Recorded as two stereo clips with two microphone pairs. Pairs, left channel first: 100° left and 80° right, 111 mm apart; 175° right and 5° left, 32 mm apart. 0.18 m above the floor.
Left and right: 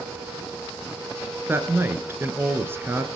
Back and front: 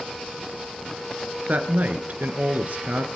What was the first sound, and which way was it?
A woman speaking, 15° right.